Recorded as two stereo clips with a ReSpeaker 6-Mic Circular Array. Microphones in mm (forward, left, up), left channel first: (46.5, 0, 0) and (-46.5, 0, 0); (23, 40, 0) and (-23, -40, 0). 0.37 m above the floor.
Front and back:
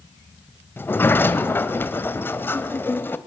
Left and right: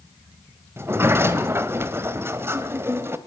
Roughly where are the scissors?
I don't hear scissors.